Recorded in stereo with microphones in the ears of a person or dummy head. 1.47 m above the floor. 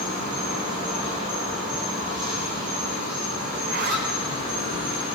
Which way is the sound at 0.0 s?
45° right (ahead or behind).